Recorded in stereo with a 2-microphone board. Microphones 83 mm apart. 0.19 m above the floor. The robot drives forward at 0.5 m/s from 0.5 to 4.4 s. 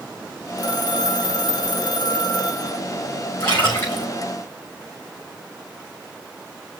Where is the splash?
30° left (ahead or behind), 6 m.